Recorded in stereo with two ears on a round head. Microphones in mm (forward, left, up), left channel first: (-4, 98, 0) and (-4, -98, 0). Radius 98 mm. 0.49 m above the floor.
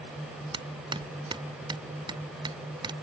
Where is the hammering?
20° right (ahead or behind).